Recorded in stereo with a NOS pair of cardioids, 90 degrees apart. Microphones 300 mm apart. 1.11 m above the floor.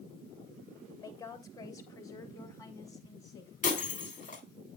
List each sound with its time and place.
1.0 s a woman speaking: 10° left, 2.5 m
3.6 s breaking glass: 25° left, 3 m